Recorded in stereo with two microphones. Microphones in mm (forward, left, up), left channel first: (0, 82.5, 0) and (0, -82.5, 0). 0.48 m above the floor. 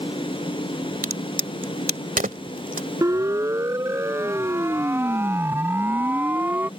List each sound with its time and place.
1.0 s a crack: 55° right (ahead or behind)
3.0 s a siren: 20° right (ahead or behind); by 6.7 s 10° right (ahead or behind)